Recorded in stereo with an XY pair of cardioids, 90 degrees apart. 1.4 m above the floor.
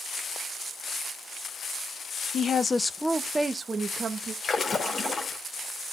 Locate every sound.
2.3 s a woman speaking: 60° left, 0.8 m; by 4.3 s 50° right, 1.7 m
4.4 s a splash: 45° left, 2 m